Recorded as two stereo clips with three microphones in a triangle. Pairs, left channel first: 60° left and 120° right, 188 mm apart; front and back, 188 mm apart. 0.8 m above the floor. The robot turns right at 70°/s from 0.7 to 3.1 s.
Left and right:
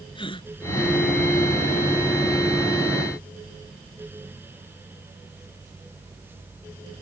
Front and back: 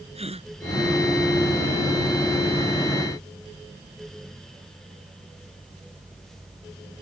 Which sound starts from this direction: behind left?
A gasp, at 0.1 s.